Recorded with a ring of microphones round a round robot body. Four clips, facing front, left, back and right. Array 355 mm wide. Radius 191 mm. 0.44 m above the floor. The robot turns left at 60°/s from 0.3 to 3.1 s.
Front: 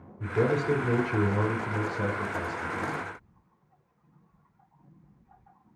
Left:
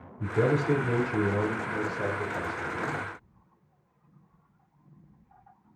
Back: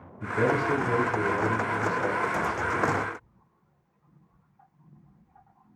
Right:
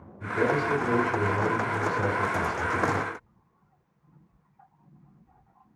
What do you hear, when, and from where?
0.2 s a man speaking: 65° left, 4 m; by 3.1 s 100° right, 4 m